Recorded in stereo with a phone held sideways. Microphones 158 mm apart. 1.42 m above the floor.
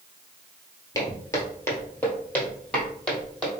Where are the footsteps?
20° left (ahead or behind), 1.5 m; by 3.5 s 5° left (ahead or behind), 2.5 m.